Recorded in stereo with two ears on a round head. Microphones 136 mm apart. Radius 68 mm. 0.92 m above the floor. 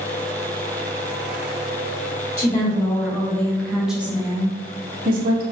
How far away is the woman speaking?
About 1.4 m.